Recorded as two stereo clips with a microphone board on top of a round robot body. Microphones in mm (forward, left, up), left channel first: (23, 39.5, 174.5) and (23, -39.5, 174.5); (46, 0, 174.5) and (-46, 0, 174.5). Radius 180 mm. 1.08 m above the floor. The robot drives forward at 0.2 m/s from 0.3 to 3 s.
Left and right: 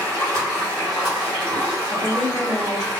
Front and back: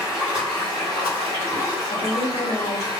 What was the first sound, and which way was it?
Running water, 150° right.